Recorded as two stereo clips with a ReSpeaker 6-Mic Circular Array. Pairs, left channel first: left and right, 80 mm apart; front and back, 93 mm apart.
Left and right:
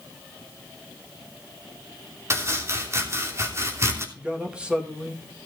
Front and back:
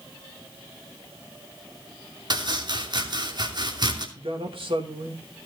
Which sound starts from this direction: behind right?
Chopping, at 2.3 s.